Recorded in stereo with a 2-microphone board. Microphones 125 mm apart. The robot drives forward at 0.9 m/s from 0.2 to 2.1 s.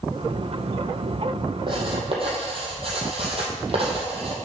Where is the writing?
40° right (ahead or behind), 2.5 m; by 4.3 s 50° right (ahead or behind), 2 m.